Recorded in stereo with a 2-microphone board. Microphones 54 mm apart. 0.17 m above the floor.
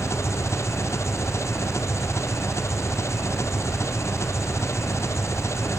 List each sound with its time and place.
0.0 s an engine running: 60° left (ahead or behind)